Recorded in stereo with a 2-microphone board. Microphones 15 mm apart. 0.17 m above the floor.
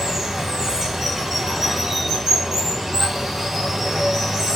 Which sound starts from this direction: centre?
Running water, at 0.0 s.